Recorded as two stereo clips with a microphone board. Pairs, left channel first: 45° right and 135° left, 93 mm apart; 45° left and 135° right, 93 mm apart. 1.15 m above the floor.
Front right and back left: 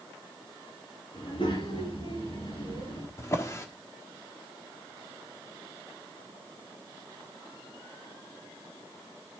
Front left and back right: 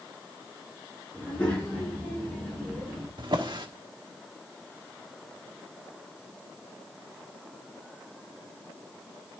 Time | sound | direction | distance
1.1 | a child speaking | 30° right | 9 m
3.2 | a drawer | 105° right | 1.4 m